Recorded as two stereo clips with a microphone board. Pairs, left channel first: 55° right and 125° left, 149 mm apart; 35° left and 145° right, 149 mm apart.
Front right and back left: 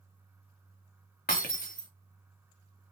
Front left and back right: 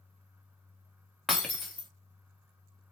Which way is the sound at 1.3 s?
55° right.